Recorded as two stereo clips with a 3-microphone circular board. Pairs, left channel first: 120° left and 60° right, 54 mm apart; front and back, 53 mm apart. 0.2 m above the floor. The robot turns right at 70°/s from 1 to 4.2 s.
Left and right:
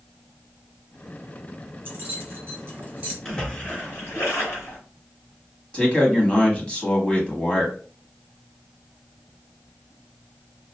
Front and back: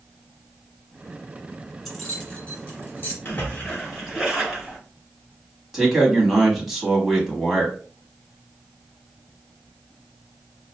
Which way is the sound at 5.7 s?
105° left.